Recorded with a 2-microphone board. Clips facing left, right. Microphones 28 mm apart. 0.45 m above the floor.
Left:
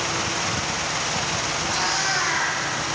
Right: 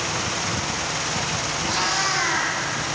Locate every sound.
1.6 s a cat meowing: 80° right, 3.5 m